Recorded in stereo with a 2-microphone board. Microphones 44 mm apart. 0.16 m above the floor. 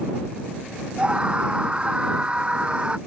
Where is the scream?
25° right (ahead or behind).